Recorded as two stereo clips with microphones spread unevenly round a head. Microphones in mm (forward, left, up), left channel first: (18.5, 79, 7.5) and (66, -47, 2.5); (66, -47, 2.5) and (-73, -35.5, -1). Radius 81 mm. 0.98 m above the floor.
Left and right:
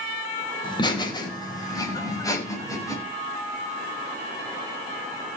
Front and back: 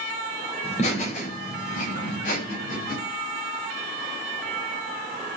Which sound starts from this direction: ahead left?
Laughter, at 0.6 s.